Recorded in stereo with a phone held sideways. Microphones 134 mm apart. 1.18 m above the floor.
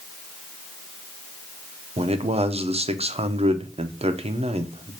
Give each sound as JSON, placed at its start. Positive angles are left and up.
{"t": 2.0, "sound": "a man speaking", "side_deg": -50, "distance_m": 0.5}